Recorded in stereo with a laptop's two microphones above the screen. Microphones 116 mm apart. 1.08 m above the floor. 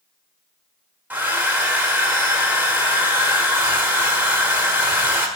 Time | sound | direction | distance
1.1 | a hair dryer | 15° right (ahead or behind) | 1.5 m